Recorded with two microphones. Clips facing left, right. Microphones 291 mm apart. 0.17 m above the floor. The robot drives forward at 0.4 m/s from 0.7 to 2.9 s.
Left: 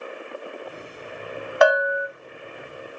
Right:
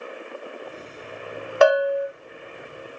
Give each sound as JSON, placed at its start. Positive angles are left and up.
{"t": 1.6, "sound": "a bell", "side_deg": -35, "distance_m": 0.6}